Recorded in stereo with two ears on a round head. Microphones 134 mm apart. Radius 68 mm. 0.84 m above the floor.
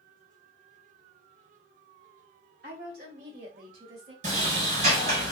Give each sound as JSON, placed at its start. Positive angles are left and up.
{"t": 2.6, "sound": "a woman speaking", "side_deg": -65, "distance_m": 2.5}
{"t": 4.2, "sound": "a sliding door", "side_deg": -50, "distance_m": 2.0}